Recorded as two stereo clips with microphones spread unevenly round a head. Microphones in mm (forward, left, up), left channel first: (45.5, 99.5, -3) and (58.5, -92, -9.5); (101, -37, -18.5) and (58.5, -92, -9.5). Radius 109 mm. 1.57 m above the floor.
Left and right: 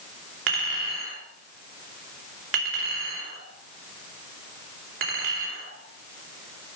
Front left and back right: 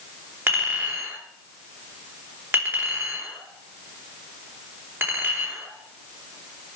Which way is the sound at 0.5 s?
80° right.